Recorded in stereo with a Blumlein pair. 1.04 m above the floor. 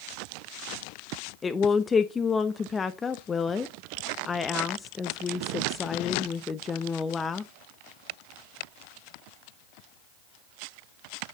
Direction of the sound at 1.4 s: 15° left.